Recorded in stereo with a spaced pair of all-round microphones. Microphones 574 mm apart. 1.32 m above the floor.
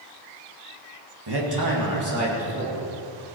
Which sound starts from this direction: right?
A man speaking, at 1.3 s.